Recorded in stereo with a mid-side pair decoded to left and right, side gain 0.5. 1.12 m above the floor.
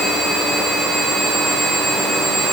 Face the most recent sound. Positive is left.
No sound to turn to.